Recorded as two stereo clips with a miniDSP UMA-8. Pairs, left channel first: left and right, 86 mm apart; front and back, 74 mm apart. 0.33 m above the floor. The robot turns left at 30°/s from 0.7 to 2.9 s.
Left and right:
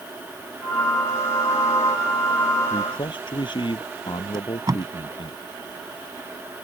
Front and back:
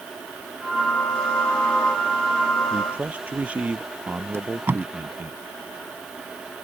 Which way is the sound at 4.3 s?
125° right.